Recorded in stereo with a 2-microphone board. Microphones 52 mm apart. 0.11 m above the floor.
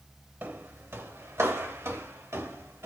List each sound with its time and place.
0.4 s footsteps: 45° right (ahead or behind), 1.1 m; by 2.9 s 85° right, 3 m